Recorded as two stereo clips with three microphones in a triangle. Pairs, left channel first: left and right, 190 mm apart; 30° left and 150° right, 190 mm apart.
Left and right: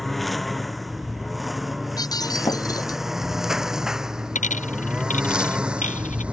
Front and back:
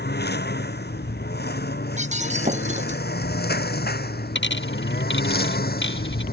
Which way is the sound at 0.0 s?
Straight ahead.